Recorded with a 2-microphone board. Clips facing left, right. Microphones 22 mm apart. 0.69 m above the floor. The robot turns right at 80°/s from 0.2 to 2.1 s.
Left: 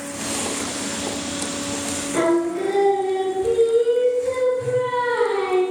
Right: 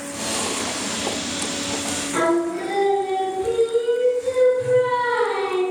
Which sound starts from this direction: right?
Singing, at 2.1 s.